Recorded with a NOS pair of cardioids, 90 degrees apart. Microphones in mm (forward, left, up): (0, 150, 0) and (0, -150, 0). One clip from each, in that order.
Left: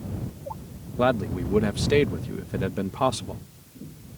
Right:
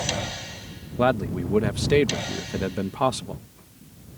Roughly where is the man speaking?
Ahead.